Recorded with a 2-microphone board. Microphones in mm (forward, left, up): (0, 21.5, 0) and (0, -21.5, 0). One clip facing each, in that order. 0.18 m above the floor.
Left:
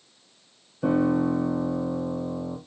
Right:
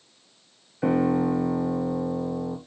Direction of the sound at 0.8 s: 65° right (ahead or behind).